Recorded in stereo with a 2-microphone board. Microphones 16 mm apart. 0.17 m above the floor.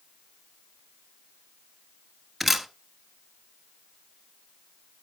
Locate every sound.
2.4 s a camera shutter: 10° right (ahead or behind), 0.8 m